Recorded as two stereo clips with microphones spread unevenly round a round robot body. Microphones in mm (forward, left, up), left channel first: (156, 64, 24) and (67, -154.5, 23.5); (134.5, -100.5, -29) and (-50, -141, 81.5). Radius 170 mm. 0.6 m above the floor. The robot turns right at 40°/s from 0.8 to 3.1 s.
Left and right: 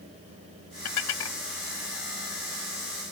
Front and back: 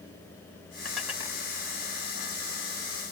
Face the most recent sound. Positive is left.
turn(degrees=180)